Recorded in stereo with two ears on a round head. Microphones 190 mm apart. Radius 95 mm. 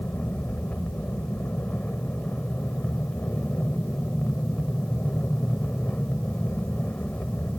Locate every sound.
0.0 s an aircraft: 5° left (ahead or behind)